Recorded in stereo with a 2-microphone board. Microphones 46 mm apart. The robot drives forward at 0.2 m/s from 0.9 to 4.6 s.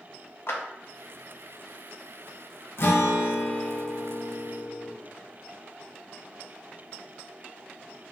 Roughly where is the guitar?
Left.